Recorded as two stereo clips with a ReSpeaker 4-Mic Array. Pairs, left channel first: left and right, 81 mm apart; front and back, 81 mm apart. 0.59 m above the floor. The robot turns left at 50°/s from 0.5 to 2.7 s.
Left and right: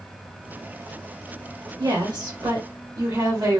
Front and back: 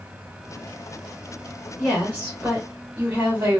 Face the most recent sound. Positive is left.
turn(degrees=-125)